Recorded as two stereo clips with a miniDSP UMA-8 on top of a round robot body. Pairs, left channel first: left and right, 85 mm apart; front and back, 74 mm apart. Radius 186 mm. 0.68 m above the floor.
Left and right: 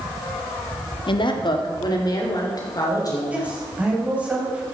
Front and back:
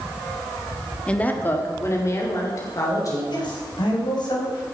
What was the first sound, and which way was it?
A woman speaking, 75° left.